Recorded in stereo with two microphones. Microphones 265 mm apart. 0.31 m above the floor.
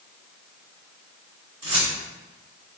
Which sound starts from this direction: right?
Keys jangling, at 1.6 s.